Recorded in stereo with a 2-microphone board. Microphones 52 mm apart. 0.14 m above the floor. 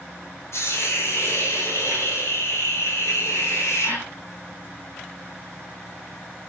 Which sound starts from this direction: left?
A hiss, at 0.5 s.